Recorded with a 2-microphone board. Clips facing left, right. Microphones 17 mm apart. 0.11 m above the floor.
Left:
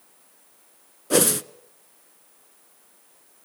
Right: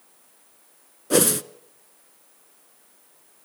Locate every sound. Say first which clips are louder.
1.1 s a whoosh: even; centre (ahead or behind), 0.5 m